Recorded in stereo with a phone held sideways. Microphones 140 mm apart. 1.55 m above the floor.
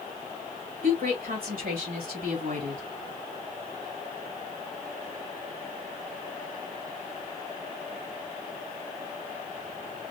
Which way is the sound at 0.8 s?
85° right.